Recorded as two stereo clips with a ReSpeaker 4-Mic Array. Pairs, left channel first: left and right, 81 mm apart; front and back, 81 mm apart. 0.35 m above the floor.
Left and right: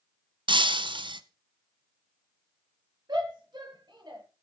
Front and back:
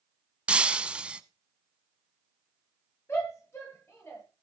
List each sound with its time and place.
0.5 s breaking glass: 100° right, 0.9 m
3.1 s a shout: 55° right, 8 m